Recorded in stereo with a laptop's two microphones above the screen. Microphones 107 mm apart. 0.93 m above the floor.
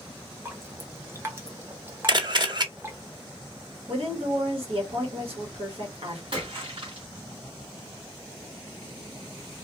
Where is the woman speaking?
60° right (ahead or behind), 1.5 m.